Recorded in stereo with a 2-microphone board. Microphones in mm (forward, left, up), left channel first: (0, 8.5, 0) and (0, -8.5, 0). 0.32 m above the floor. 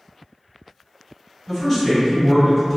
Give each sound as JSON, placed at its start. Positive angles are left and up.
{"t": 1.5, "sound": "a man speaking", "side_deg": 15, "distance_m": 1.7}